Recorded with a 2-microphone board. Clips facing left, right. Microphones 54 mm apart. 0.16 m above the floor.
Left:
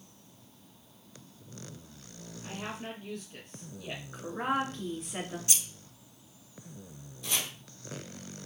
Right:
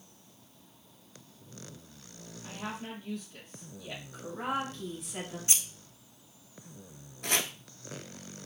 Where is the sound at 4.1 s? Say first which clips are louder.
Left 3 dB; 45° left (ahead or behind), 1.7 m.